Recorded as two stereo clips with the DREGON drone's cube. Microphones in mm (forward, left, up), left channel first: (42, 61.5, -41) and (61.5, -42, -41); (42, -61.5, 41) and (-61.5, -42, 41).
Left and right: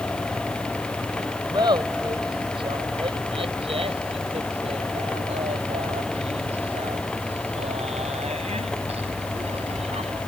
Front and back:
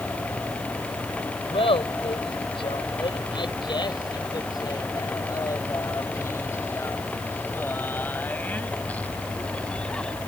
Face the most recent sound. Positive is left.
turn(degrees=-90)